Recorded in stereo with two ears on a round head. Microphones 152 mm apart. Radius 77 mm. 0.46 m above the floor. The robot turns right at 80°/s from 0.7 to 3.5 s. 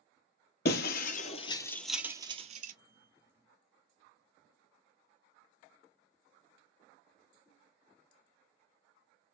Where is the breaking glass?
65° left (ahead or behind), 0.8 m; by 2.7 s 55° right (ahead or behind), 0.8 m.